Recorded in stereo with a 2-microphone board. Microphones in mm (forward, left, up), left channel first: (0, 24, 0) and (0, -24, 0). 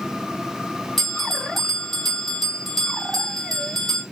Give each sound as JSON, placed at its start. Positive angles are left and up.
{"t": 1.0, "sound": "a bell", "side_deg": 10, "distance_m": 1.9}